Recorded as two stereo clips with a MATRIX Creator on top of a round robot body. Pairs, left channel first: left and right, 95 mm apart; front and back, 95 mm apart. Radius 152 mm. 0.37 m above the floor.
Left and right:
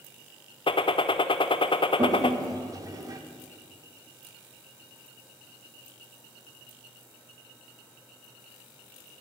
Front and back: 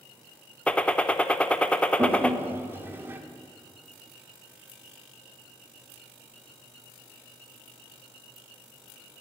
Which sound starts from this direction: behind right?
A toilet flushing, at 2.0 s.